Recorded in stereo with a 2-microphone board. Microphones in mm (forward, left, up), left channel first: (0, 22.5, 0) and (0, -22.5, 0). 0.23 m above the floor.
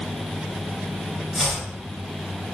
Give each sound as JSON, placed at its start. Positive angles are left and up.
{"t": 1.3, "sound": "chopping", "side_deg": -10, "distance_m": 1.5}